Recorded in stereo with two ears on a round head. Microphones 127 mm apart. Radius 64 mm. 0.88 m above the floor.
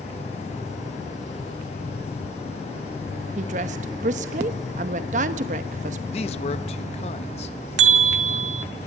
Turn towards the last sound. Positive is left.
turn(degrees=-50)  # may be behind; listen again after turning